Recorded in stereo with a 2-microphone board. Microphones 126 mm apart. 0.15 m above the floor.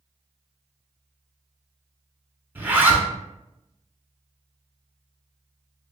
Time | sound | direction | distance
2.5 | a zipper | 15° right (ahead or behind) | 0.7 m